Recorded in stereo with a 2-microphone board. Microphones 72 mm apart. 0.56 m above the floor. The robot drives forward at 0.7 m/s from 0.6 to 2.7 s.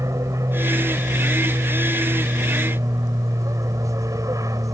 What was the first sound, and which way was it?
An aircraft, 45° right (ahead or behind).